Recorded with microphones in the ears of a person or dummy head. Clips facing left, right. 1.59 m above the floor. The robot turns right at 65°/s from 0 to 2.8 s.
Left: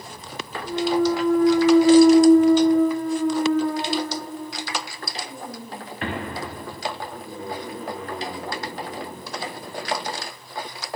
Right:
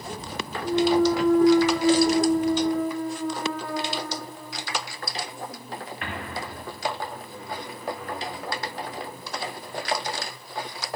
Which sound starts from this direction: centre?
A clunk, at 0.6 s.